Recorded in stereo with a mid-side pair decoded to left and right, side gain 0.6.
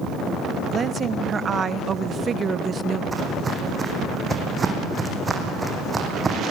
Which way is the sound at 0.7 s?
35° right.